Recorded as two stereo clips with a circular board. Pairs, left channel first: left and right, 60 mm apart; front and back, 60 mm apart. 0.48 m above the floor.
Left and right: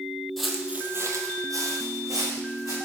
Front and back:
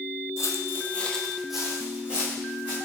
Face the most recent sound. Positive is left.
turn(degrees=-115)